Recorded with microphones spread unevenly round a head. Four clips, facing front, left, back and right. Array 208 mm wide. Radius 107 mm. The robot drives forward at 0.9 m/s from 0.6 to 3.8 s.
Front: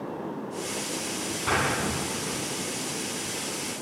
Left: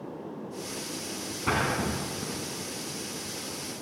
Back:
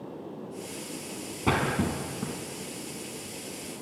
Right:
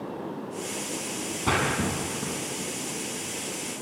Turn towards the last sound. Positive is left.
turn(degrees=-170)